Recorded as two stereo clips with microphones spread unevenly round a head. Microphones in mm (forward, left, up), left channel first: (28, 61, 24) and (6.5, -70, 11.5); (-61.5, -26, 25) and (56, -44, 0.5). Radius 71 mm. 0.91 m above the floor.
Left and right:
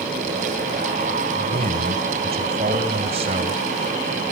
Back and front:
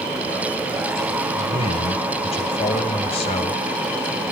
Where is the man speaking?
150° right, 5 m.